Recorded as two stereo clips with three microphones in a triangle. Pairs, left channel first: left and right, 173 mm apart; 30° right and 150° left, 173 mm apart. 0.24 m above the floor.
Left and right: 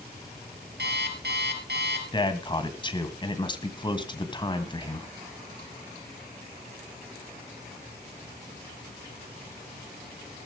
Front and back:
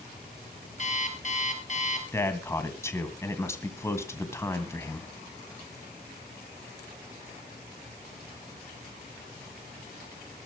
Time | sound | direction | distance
0.8 | an alarm clock | 75° right | 3 m
2.1 | a man speaking | 40° left | 2.5 m